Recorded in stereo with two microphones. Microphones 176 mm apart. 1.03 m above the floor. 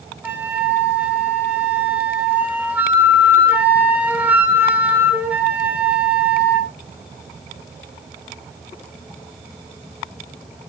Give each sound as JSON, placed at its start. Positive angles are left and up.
{"t": 0.2, "sound": "a flute", "side_deg": -10, "distance_m": 2.0}